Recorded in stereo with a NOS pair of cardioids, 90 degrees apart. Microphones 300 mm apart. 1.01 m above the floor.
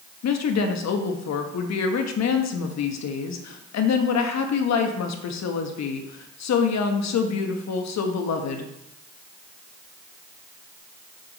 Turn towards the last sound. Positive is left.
turn(degrees=65)